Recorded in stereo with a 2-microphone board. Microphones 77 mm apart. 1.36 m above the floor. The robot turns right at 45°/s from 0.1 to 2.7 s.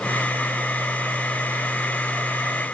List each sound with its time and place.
Only background noise.